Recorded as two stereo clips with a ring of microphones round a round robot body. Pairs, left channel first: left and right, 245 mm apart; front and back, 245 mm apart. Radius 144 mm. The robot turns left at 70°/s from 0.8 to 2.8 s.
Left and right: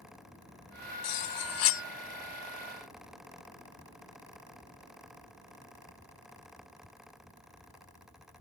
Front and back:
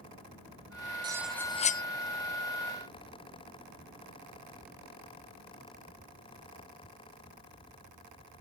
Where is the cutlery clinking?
105° left; by 1.8 s 50° left.